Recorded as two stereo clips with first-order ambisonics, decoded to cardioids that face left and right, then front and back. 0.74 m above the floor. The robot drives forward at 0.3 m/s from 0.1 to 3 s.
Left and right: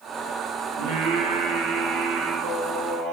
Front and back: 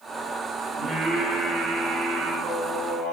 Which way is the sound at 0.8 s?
100° right.